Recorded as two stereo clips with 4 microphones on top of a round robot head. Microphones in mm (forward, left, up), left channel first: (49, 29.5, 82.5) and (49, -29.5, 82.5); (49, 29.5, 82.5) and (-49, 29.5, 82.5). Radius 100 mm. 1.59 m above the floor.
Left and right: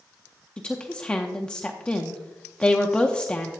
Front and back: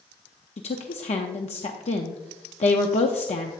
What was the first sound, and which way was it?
A woman speaking, 15° left.